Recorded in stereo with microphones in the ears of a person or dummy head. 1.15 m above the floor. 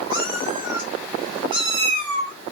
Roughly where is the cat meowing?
Right.